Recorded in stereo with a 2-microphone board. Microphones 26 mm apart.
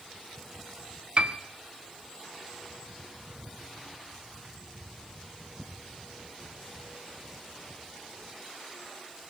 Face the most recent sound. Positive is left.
turn(degrees=-50)  # may be behind; listen again after turning